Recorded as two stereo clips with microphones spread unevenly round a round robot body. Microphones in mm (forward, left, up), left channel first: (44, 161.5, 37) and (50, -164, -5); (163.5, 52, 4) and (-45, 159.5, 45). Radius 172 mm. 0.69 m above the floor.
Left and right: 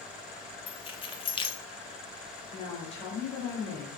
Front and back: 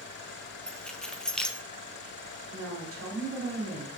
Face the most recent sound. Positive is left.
turn(degrees=150)